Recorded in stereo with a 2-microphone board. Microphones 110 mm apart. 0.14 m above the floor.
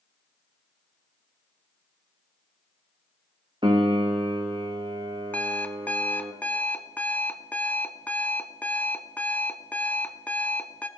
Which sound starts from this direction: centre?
An alarm clock, at 5.3 s.